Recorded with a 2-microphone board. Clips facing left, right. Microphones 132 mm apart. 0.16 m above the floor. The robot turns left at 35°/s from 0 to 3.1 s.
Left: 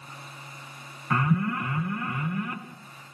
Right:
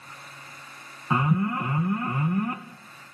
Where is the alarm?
30° right, 1.6 m; by 2.6 s 85° right, 1.6 m.